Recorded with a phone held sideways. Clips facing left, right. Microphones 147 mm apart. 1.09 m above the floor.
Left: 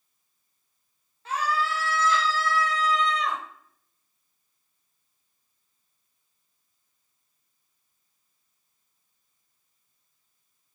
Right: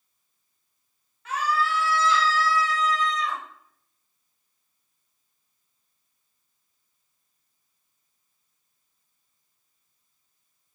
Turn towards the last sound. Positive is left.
turn(degrees=65)  # may be behind; listen again after turning